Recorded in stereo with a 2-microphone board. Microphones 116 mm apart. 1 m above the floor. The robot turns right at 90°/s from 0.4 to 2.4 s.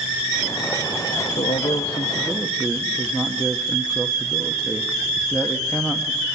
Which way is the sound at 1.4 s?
90° left.